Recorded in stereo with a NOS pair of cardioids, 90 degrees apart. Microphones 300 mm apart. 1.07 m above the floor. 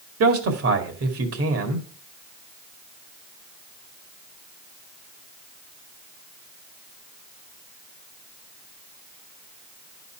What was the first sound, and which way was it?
A man speaking, 50° right.